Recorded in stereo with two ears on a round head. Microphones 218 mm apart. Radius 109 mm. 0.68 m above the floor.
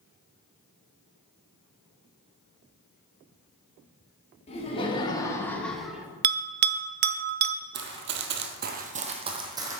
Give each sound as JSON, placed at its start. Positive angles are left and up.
{"t": 4.5, "sound": "laughter", "side_deg": 25, "distance_m": 1.5}
{"t": 6.2, "sound": "a bell", "side_deg": -40, "distance_m": 0.5}
{"t": 7.7, "sound": "running footsteps", "side_deg": -50, "distance_m": 1.1}